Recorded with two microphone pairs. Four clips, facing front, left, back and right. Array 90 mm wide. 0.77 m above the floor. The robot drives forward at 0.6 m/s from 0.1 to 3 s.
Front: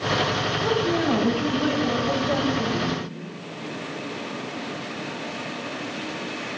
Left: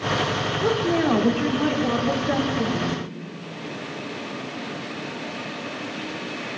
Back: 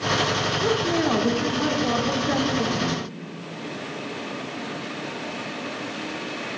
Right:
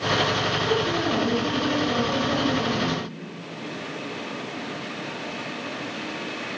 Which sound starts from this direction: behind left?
A woman speaking, at 0.6 s.